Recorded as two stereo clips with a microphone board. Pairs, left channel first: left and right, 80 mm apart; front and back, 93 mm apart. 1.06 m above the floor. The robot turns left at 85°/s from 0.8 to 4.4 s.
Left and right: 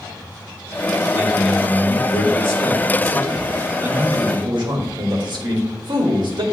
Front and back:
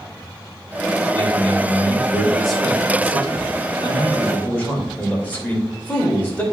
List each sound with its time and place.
1.1 s a man speaking: 150° right, 2 m; by 6.4 s 70° right, 2 m